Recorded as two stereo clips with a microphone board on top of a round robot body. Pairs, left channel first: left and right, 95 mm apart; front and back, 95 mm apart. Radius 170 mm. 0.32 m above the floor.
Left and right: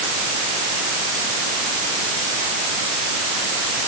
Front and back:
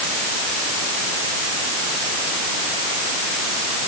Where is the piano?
I don't hear a piano.